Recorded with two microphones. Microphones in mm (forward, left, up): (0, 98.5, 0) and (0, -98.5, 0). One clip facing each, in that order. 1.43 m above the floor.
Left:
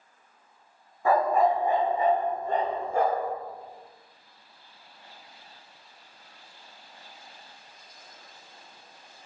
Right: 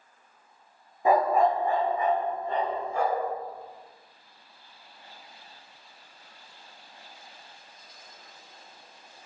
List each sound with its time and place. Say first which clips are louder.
1.1 s a dog barking: even; 20° right (ahead or behind), 0.9 m; by 3.3 s 60° left (ahead or behind), 1.9 m